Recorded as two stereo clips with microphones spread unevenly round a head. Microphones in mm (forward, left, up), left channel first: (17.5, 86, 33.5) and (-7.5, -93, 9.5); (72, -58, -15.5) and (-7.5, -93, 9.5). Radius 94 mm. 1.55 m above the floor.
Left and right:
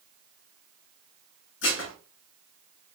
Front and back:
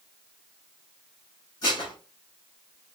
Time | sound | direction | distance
1.6 | dishes clattering | 95° left | 1.7 m